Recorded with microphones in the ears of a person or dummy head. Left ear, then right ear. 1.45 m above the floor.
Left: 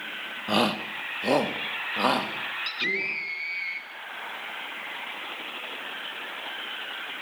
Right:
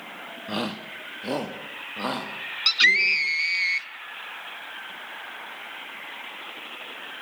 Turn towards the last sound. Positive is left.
turn(degrees=-55)  # may be behind; listen again after turning